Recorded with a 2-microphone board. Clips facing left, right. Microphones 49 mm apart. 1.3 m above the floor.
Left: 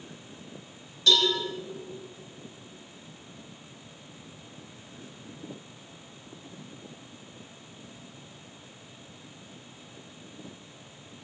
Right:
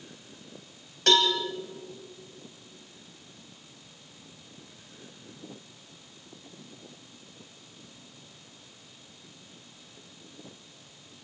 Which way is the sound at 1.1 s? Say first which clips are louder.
Right 1 dB; 65° right (ahead or behind).